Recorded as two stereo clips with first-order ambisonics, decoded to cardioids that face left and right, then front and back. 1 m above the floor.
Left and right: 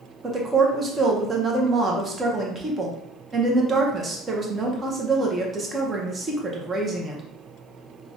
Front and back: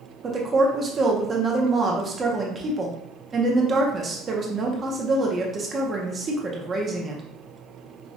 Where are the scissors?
No scissors in this recording.